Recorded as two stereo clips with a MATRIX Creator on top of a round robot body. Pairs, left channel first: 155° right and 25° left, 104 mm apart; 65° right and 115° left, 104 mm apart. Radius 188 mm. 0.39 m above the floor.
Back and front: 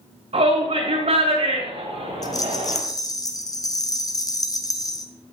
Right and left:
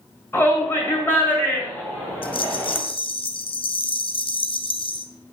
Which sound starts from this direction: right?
A rattle, at 2.2 s.